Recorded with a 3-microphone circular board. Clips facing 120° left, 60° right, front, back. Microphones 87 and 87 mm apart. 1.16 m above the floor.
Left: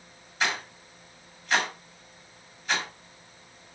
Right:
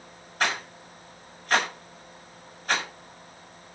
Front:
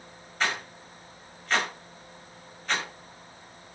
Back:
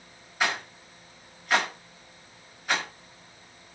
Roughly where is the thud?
I don't hear a thud.